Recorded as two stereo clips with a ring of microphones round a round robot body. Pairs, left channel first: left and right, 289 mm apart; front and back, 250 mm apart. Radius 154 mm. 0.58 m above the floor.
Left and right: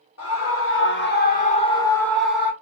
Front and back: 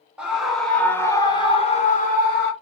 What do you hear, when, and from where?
0.2 s a scream: 95° left, 1.7 m; by 2.5 s 10° right, 1.4 m